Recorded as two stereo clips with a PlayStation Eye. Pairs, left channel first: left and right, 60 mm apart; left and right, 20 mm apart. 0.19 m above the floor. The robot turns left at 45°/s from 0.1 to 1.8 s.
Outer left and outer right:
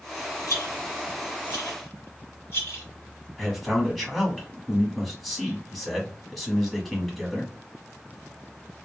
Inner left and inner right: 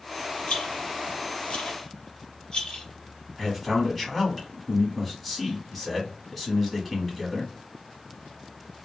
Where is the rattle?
65° left (ahead or behind), 1.8 m; by 2.8 s 35° left (ahead or behind), 1.8 m.